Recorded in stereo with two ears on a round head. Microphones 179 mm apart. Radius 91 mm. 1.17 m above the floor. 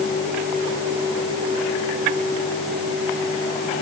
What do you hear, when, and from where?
Only background noise.